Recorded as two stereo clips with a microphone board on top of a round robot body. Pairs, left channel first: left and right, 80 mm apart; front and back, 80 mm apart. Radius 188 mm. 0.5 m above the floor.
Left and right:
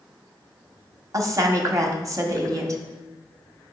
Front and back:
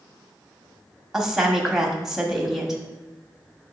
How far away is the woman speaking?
About 1.4 m.